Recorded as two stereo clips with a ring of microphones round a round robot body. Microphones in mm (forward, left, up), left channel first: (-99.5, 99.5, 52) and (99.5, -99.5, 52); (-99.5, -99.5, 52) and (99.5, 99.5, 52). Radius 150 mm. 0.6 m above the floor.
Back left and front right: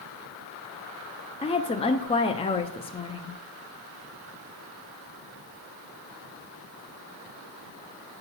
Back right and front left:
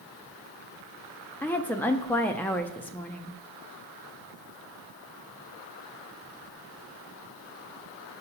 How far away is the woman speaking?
About 0.6 m.